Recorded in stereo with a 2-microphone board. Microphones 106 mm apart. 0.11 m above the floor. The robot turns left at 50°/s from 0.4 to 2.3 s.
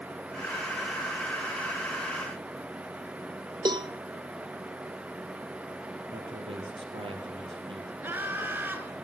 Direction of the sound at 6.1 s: 60° right (ahead or behind).